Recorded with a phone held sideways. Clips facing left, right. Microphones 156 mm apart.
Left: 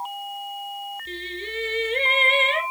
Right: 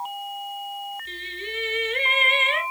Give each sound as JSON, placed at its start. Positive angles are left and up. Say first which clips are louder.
{"t": 1.1, "sound": "singing", "louder": "left 3 dB", "side_deg": 30, "distance_m": 3.0}